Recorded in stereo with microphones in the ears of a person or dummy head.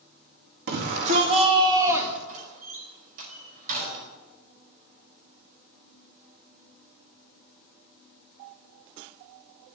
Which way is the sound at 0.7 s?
55° right (ahead or behind).